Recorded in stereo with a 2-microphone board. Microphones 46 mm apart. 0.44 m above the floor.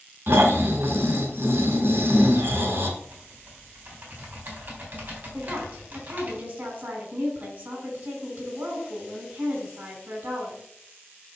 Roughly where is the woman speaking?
Right.